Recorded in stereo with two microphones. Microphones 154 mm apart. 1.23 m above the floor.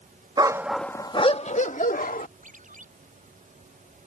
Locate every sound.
0.4 s a dog barking: 30° right (ahead or behind); by 2.3 s 65° left (ahead or behind)
2.4 s a ringtone: 55° right (ahead or behind)